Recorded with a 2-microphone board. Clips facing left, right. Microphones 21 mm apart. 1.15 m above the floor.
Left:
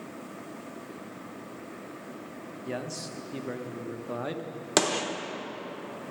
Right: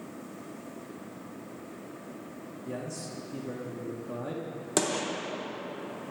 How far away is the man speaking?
About 0.9 m.